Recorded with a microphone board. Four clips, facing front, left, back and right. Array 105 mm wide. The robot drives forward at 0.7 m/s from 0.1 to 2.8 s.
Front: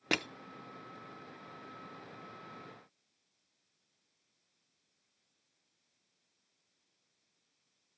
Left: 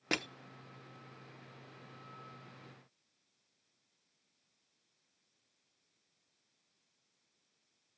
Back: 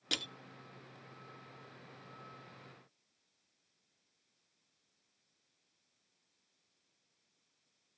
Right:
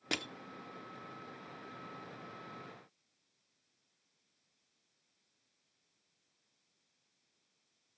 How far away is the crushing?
About 0.8 m.